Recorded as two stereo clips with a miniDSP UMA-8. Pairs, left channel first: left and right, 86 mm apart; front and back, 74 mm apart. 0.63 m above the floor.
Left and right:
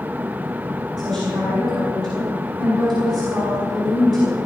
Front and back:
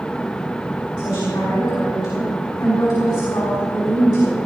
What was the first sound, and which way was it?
A woman speaking, 5° left.